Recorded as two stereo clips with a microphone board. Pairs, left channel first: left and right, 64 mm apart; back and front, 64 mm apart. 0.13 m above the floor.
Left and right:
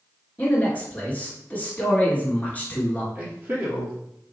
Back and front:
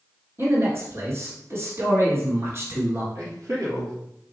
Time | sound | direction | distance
0.4 | a man speaking | 30° left | 1.5 m
3.1 | a man speaking | 30° right | 2.5 m